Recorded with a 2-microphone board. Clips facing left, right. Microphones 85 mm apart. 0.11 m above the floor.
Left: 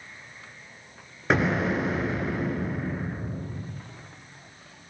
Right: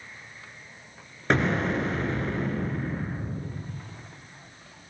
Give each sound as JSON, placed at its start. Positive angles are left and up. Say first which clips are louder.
{"t": 1.3, "sound": "an explosion", "louder": "left 1 dB", "side_deg": 5, "distance_m": 1.1}